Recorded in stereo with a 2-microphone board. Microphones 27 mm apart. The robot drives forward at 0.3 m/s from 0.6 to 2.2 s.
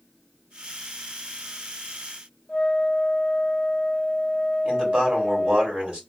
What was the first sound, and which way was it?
A flute, 25° left (ahead or behind).